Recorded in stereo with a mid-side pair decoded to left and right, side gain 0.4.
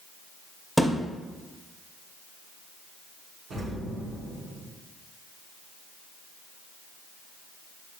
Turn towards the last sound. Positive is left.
turn(degrees=-70)